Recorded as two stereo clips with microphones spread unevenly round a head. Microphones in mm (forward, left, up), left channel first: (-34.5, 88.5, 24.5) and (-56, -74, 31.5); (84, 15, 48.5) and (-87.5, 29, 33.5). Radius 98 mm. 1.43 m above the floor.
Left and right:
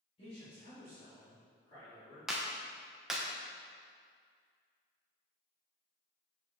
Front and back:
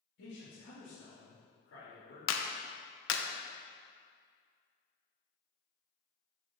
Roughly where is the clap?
Ahead.